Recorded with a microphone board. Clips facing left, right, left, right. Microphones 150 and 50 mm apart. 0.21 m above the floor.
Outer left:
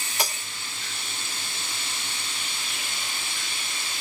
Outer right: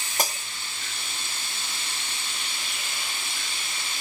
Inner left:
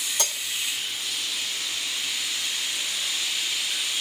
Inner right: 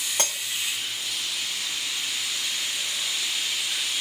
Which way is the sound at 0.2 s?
45° right (ahead or behind).